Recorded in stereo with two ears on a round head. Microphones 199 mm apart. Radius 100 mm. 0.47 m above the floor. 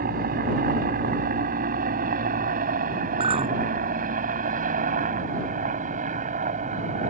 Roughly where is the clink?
Right.